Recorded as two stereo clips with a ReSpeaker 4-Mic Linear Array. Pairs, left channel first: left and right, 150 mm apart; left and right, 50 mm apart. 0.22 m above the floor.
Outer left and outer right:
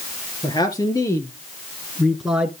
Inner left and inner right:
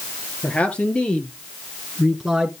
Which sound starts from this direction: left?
A man speaking, at 0.4 s.